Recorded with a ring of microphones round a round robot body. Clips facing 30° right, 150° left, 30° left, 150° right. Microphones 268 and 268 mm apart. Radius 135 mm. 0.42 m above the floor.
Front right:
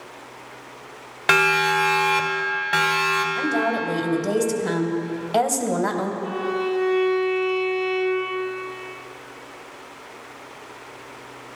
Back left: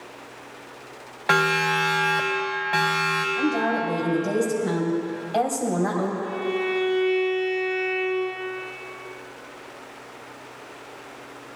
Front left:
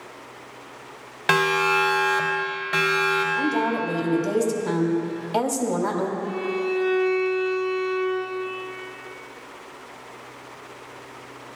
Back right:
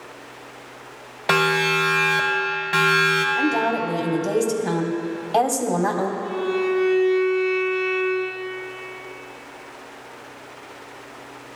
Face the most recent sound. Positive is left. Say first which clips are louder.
# front right 1 dB, back right 3 dB
turn(degrees=-20)